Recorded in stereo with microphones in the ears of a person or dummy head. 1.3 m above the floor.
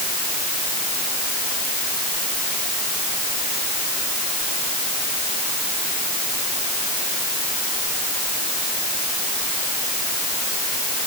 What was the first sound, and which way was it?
Only background noise.